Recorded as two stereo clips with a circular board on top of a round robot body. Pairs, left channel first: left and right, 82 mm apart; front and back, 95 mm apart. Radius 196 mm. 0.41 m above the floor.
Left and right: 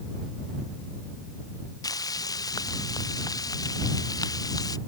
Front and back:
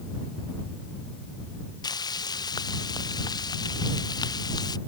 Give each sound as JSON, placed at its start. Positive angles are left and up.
{"t": 1.8, "sound": "frying", "azimuth_deg": 45}